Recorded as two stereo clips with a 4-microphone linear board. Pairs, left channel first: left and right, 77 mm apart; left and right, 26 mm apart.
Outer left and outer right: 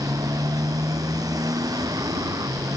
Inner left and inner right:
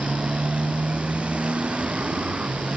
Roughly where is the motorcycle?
Right.